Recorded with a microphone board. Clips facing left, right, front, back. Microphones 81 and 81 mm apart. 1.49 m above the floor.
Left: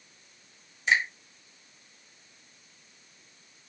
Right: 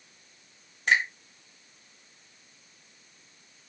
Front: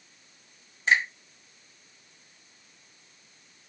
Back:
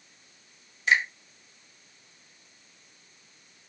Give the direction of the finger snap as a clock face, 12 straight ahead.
2 o'clock.